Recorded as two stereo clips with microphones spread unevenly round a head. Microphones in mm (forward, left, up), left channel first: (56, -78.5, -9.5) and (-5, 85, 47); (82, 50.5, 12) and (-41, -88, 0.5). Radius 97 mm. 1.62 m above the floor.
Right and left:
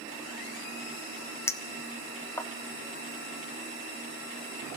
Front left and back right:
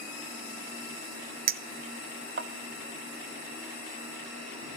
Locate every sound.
1.5 s a clink: 160° right, 0.8 m